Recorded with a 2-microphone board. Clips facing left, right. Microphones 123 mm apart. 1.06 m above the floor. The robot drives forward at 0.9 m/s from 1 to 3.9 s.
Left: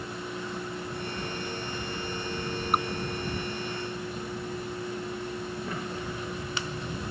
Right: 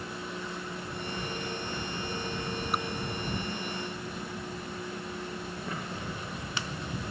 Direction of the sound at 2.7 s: 50° left (ahead or behind).